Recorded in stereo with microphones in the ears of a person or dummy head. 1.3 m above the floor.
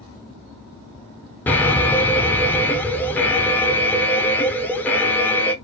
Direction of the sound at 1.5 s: 15° left (ahead or behind).